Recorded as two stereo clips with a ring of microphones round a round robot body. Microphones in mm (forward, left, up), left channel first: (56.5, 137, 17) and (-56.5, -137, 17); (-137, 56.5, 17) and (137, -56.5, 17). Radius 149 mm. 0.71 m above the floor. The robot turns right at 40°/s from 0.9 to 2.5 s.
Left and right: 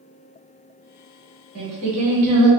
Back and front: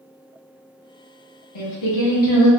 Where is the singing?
165° right, 1.6 m; by 2.5 s 130° right, 1.6 m.